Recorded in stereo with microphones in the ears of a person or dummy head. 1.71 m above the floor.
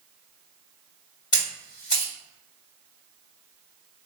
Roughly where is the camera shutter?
Left.